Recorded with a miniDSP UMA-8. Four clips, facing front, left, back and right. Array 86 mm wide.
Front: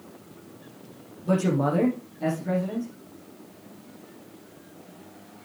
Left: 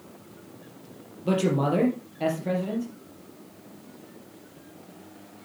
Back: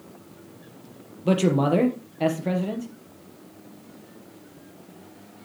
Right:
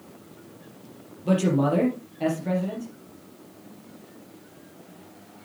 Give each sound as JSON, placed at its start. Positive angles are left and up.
{"t": 1.2, "sound": "a man speaking", "azimuth_deg": 175, "distance_m": 3.5}